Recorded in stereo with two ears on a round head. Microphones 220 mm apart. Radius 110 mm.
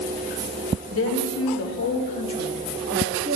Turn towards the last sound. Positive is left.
turn(degrees=-30)  # may be behind; listen again after turning